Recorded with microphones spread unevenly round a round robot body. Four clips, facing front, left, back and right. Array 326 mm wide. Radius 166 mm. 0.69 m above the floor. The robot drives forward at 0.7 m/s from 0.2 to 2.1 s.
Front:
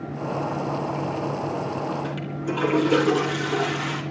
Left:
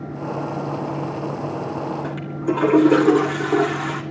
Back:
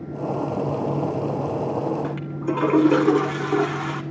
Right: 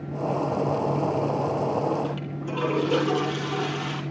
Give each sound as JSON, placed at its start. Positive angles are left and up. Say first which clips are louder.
{"t": 2.0, "sound": "a toilet flushing", "louder": "left 7 dB, back 2 dB", "azimuth_deg": 115, "distance_m": 1.6}